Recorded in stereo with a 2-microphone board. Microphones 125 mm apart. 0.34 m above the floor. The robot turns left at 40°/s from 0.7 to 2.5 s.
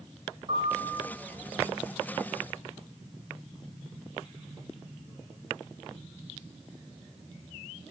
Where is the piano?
45° right (ahead or behind), 0.8 m.